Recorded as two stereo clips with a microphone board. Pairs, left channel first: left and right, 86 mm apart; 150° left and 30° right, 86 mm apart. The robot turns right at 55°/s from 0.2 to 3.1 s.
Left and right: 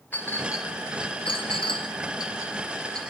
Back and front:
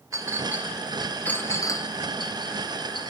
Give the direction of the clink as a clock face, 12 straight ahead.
11 o'clock.